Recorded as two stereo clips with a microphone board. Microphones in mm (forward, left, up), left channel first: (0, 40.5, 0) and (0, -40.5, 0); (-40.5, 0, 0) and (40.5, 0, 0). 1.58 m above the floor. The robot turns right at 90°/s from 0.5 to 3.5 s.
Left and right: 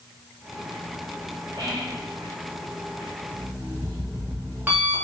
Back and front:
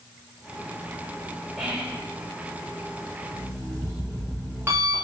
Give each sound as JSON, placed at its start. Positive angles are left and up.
{"t": 1.6, "sound": "whispering", "azimuth_deg": -80, "distance_m": 0.9}
{"t": 3.3, "sound": "an alarm clock", "azimuth_deg": -55, "distance_m": 1.2}